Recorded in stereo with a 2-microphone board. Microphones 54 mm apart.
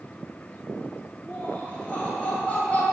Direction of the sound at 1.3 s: 30° left (ahead or behind).